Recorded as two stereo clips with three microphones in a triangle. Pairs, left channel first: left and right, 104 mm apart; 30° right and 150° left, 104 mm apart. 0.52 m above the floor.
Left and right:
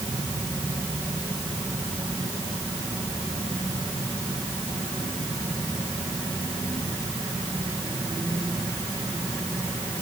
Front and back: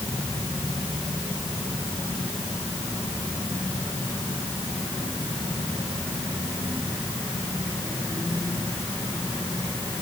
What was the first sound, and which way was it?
Only background noise.